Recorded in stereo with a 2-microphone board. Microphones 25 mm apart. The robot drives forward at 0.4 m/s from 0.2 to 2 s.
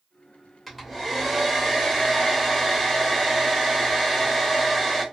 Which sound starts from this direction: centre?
A hair dryer, at 0.7 s.